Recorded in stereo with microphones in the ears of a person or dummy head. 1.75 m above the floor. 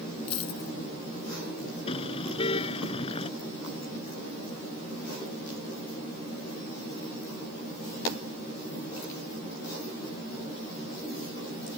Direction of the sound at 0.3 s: 40° left (ahead or behind).